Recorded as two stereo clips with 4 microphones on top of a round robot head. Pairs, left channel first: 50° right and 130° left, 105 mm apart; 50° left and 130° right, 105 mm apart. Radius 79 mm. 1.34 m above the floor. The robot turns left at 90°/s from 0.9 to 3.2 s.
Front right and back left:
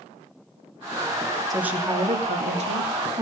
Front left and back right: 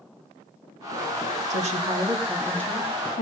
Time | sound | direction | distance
1.5 | a woman speaking | 140° right | 3 m